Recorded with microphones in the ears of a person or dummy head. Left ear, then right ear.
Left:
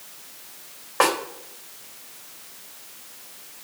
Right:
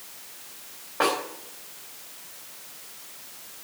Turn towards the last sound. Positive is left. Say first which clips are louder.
# left 4 dB
turn(degrees=70)  # may be behind; listen again after turning